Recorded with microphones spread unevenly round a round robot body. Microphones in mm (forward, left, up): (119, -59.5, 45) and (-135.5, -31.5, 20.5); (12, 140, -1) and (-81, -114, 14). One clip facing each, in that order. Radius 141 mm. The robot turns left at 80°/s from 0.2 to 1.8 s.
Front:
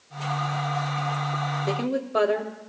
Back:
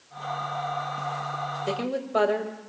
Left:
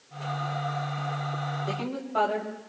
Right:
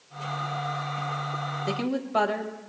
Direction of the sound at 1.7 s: 85° right.